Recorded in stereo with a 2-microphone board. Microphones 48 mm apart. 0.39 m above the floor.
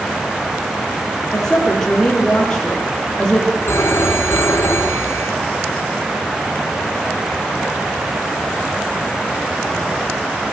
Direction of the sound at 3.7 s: 65° left (ahead or behind).